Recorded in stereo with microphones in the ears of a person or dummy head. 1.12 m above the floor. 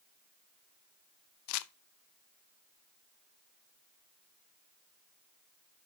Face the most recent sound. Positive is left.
turn(degrees=80)